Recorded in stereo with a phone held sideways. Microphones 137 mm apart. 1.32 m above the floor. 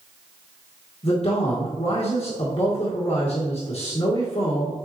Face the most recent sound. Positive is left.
turn(degrees=50)  # may be behind; listen again after turning